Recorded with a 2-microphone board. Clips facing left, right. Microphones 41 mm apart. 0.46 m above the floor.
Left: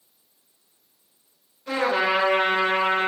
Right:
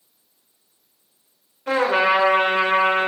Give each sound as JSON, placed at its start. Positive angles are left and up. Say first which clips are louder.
{"t": 1.7, "sound": "a trumpet", "louder": "right 4 dB", "side_deg": -55, "distance_m": 1.4}